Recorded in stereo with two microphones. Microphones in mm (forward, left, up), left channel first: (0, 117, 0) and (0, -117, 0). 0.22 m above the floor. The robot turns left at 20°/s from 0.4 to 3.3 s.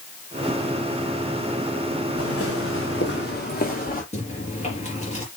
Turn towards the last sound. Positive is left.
turn(degrees=30)  # may be behind; listen again after turning